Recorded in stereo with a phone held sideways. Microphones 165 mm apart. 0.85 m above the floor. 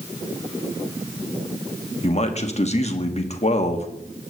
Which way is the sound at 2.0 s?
40° left (ahead or behind).